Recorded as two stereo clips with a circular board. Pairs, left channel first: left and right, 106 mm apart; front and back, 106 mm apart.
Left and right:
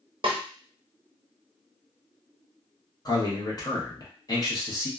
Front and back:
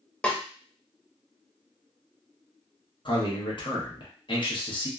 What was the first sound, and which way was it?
A snare drum, 75° right.